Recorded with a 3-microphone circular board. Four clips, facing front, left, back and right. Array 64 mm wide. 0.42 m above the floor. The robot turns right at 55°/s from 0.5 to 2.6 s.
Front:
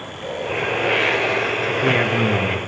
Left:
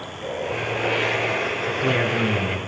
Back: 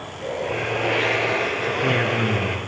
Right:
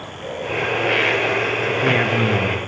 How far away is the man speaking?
About 1.4 m.